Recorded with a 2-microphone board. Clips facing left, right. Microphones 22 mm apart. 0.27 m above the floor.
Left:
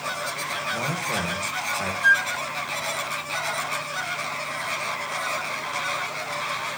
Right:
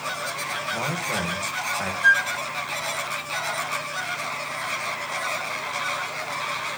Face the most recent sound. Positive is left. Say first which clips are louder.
# right 1 dB
turn(degrees=-10)  # may be behind; listen again after turning